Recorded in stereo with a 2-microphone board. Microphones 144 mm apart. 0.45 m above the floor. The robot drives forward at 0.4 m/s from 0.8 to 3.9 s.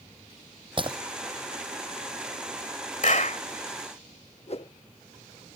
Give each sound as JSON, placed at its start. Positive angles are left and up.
{"t": 0.8, "sound": "breaking glass", "side_deg": -35}
{"t": 3.0, "sound": "a clap", "side_deg": 60}
{"t": 4.5, "sound": "a whoosh", "side_deg": 45}